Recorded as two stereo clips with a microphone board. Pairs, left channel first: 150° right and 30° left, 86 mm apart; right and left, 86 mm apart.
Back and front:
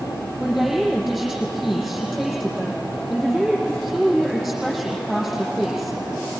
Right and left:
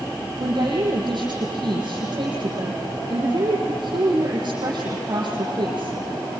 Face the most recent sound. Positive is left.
turn(degrees=120)